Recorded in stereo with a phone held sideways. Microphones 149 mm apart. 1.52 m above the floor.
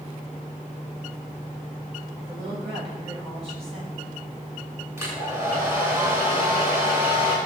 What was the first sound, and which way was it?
A woman speaking, 45° right (ahead or behind).